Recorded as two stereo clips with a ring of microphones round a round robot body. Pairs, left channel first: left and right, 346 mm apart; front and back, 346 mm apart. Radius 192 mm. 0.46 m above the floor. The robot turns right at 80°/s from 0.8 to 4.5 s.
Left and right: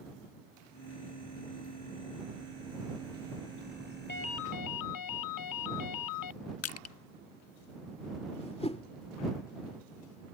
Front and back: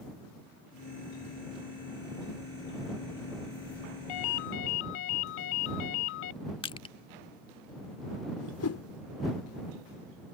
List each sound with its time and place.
4.1 s a ringtone: 25° left; by 6.3 s 60° left
6.6 s crushing: 70° left
8.4 s a whoosh: 20° left